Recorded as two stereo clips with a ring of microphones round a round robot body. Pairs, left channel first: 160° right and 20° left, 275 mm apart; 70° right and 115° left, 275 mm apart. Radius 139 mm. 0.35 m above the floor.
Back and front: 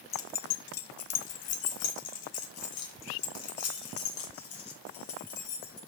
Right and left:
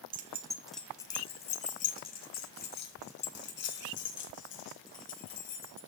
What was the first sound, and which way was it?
Keys jangling, 150° left.